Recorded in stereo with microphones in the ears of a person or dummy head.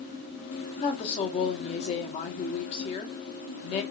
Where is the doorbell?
I don't hear a doorbell.